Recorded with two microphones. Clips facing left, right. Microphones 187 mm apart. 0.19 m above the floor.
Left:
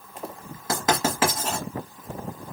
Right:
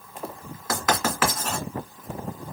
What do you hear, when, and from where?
0.7 s writing: 30° left (ahead or behind), 1.6 m